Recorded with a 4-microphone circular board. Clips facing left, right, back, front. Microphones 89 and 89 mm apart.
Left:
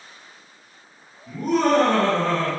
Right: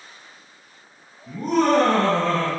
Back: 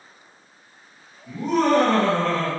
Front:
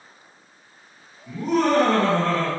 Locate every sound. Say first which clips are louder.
1.3 s laughter: even, back 1 dB; 80° right, 1.8 m